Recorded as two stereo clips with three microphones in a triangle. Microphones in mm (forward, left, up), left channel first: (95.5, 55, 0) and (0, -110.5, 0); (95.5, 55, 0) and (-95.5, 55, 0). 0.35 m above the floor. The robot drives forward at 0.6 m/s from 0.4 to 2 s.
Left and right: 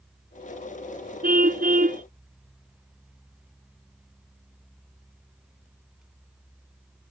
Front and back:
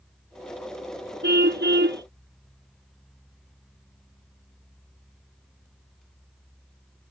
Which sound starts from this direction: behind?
A car horn, at 1.2 s.